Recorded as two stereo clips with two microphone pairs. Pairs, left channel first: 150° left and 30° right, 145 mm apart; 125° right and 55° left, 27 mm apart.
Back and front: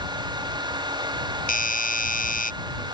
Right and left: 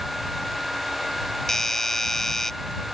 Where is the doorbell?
160° left.